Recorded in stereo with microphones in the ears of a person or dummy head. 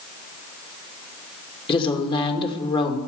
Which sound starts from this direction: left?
A woman speaking, at 1.7 s.